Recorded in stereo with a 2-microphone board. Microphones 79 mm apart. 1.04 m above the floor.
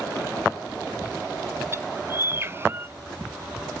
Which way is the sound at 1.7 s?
30° right (ahead or behind).